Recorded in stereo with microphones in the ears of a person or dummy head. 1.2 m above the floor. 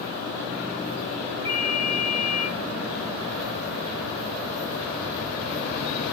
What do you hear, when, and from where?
1.4 s a ringtone: 15° left (ahead or behind), 0.7 m